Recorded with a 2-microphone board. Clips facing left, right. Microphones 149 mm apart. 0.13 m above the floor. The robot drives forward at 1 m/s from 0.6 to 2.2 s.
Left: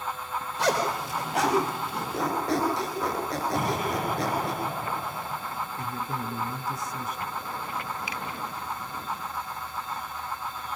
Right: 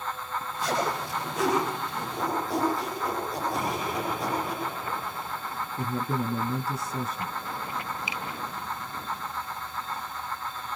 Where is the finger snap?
20° right (ahead or behind), 0.9 m.